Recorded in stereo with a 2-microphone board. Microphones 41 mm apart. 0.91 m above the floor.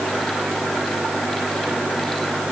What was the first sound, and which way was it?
Only background noise.